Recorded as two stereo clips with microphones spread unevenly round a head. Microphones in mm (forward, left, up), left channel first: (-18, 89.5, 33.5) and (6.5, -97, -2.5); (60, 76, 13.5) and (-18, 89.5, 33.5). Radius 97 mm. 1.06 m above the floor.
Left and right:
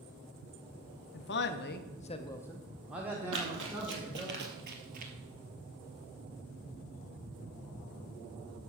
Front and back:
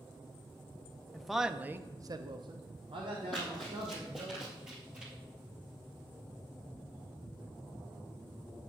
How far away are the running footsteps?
About 2 m.